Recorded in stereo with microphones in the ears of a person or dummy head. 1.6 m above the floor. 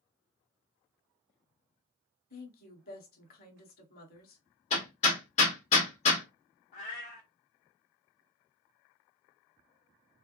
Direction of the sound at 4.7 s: 40° left (ahead or behind).